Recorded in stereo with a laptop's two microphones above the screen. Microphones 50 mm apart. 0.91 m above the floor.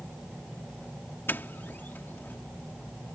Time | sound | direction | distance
1.3 | a doorbell | 45° left (ahead or behind) | ?